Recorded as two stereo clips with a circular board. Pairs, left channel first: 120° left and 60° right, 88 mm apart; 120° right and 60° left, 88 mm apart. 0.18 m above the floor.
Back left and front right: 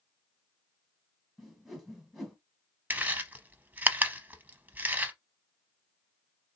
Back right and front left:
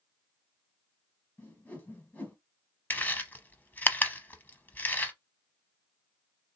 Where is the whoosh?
145° right, 1.4 m.